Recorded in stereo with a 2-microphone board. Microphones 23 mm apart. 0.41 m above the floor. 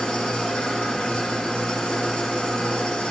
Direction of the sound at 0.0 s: 75° left (ahead or behind).